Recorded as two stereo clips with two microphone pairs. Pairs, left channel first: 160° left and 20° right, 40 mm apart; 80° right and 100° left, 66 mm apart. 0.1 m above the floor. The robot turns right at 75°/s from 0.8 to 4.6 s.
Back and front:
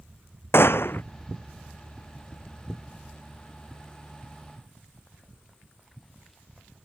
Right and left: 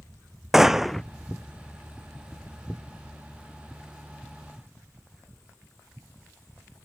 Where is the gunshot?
Straight behind; by 1.0 s 160° right.